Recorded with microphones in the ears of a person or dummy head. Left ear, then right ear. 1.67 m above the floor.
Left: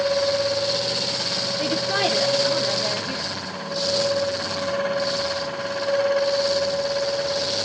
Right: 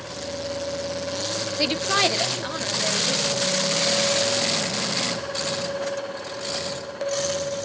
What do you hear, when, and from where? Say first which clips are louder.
1.6 s a woman speaking: right 3 dB; 55° right (ahead or behind), 0.6 m; by 3.3 s 10° left (ahead or behind), 1.3 m